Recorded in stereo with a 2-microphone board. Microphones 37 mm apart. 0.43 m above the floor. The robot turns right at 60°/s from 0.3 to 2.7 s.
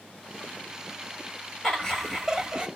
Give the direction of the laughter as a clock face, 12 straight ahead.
7 o'clock.